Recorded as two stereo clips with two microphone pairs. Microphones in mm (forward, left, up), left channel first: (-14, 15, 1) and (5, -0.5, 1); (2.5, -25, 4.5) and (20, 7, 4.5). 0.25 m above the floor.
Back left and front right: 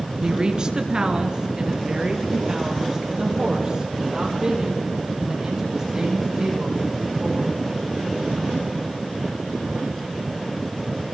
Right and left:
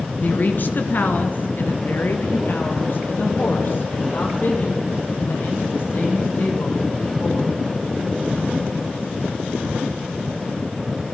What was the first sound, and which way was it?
A woman speaking, 90° right.